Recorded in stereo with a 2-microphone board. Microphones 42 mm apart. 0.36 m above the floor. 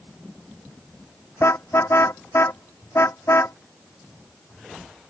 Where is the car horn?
80° left.